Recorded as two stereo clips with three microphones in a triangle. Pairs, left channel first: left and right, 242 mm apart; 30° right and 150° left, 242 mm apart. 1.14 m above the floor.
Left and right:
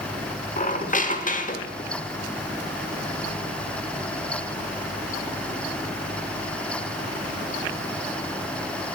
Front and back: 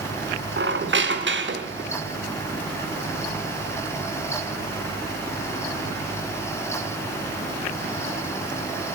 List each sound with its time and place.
0.6 s a squeak: 135° left, 1.1 m